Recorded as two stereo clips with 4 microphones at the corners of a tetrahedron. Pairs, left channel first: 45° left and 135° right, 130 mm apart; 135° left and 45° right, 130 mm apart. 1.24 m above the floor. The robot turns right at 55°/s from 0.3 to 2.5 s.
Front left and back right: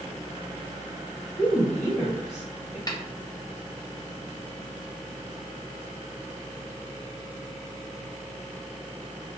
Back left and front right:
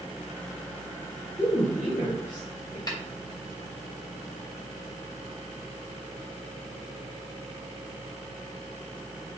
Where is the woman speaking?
90° left, 1.5 m; by 2.8 s 150° left, 1.5 m.